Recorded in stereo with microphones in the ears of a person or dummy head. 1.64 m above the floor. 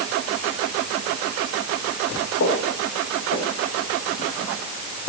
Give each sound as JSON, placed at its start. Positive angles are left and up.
{"t": 2.4, "sound": "footsteps", "side_deg": 50, "distance_m": 4.5}